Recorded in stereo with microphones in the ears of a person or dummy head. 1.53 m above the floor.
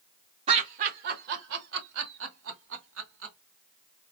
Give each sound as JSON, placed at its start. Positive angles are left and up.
{"t": 0.5, "sound": "laughter", "side_deg": -40, "distance_m": 0.9}